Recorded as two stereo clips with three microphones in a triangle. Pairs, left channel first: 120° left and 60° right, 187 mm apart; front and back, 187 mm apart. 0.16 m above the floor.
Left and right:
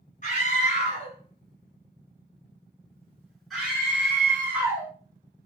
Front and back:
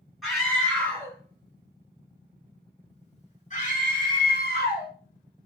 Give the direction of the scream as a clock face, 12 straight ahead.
9 o'clock.